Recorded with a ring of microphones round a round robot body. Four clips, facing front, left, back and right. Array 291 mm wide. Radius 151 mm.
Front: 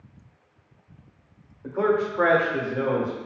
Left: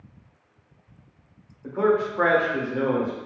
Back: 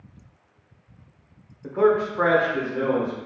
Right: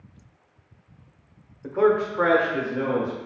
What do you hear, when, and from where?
1.6 s a man speaking: 115° right, 0.8 m; by 3.2 s 70° left, 1.2 m